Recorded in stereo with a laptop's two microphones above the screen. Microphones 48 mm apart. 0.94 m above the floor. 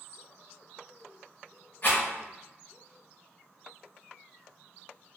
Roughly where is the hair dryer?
I don't hear a hair dryer.